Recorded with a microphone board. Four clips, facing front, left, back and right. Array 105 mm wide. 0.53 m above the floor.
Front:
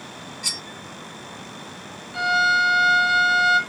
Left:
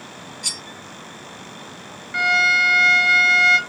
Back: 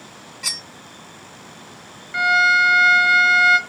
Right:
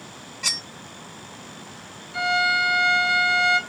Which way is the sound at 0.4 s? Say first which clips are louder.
Right 2 dB, even; 120° right.